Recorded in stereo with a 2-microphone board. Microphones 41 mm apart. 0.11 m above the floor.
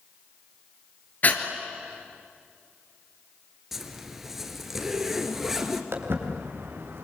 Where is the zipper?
10° right (ahead or behind), 1.9 m.